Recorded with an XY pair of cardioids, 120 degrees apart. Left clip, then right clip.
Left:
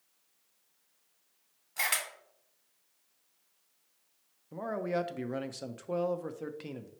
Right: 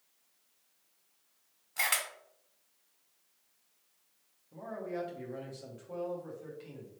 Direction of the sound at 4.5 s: 65° left.